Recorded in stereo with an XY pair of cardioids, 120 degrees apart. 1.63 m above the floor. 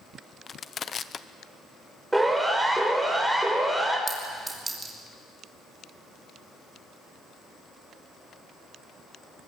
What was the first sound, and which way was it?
Crushing, 35° left.